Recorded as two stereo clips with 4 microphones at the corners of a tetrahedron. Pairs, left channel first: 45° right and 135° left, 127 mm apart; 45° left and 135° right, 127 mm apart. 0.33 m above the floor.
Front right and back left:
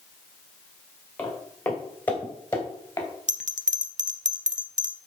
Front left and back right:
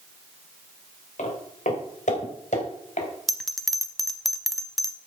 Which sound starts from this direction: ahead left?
Footsteps, at 1.2 s.